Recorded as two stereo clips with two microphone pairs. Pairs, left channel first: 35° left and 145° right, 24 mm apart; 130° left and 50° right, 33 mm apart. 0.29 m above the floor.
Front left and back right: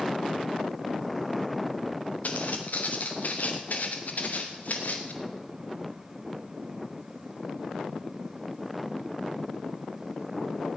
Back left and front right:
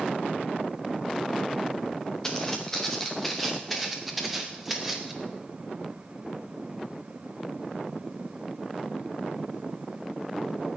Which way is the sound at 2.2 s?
55° left.